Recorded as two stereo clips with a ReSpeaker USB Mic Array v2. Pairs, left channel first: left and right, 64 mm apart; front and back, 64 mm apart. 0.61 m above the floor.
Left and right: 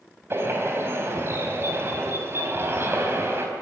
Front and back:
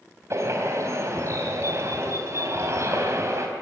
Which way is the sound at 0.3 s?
140° right.